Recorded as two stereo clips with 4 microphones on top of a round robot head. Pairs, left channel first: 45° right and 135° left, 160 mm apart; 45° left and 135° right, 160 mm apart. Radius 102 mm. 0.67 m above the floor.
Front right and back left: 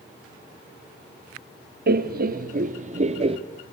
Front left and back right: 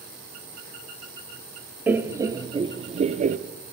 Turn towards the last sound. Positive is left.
turn(degrees=-170)